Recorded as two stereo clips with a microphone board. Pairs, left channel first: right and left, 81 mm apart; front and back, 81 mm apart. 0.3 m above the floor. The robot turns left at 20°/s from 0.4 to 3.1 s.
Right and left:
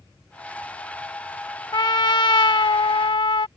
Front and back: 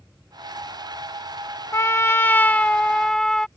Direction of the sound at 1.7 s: 55° right.